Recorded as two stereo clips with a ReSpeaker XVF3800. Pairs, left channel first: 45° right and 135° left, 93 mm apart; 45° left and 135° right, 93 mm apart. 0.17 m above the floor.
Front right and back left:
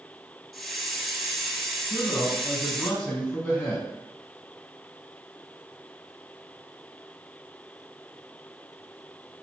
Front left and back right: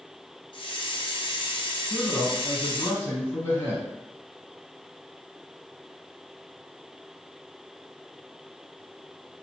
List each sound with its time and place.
0.5 s a hiss: 45° left, 0.5 m
1.9 s a man speaking: 20° left, 1.5 m